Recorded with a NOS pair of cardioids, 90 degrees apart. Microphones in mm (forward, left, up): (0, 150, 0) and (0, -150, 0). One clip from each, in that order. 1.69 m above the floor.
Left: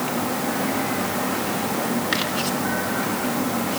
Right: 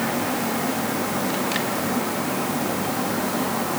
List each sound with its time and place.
Only background noise.